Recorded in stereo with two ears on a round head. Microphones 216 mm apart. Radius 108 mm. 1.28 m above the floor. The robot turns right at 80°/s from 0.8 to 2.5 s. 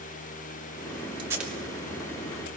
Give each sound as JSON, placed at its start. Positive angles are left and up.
{"t": 1.2, "sound": "tape being pulled", "side_deg": -20, "distance_m": 3.0}